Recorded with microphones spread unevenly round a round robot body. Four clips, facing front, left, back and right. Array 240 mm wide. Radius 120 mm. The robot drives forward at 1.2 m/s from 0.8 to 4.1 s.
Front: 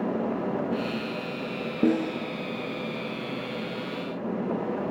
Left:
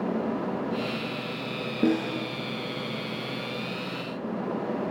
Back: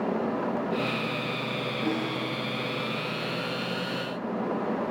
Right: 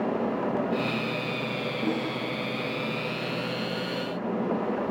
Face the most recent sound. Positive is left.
turn(degrees=80)